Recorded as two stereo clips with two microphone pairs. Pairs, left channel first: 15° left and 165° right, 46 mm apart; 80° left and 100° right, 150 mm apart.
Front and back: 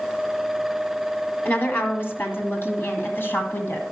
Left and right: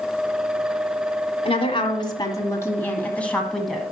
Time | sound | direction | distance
1.4 | a woman speaking | 40° left | 1.9 m